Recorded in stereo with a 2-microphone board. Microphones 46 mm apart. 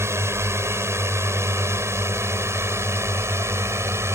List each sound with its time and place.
0.0 s a drone: 75° right (ahead or behind)